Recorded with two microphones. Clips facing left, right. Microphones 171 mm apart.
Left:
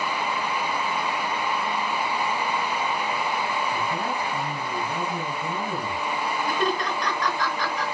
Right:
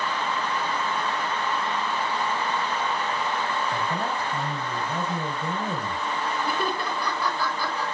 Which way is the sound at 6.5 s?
10° right (ahead or behind).